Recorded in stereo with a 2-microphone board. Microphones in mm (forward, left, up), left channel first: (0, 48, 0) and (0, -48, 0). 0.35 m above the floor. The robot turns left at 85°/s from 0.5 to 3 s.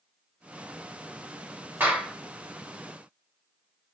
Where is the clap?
145° right, 1.0 m; by 2.2 s 175° right, 1.0 m.